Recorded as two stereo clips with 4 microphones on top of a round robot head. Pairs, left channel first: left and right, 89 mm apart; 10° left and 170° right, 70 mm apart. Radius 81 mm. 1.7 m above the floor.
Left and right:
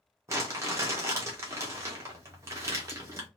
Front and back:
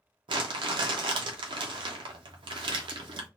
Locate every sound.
0.3 s crumpling: 155° right, 0.7 m